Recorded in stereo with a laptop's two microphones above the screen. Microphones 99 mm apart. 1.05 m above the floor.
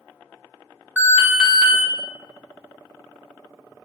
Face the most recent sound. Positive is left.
turn(degrees=-15)  # may be behind; listen again after turning